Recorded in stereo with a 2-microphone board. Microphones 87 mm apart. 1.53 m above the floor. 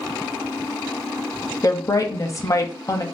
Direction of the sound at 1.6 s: 35° left (ahead or behind).